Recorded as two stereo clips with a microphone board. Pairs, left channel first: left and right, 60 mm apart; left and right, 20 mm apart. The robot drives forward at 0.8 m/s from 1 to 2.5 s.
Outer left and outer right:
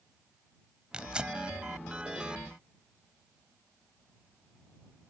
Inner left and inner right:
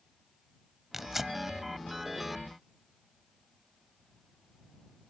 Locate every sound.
0.9 s tearing paper: 15° right (ahead or behind)